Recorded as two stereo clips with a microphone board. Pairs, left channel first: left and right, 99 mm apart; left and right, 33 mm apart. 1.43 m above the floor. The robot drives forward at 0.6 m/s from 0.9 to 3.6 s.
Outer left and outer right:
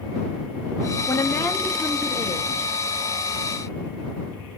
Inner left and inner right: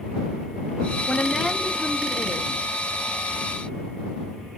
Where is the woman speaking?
35° left (ahead or behind), 0.6 m; by 2.7 s 15° left (ahead or behind), 1.5 m.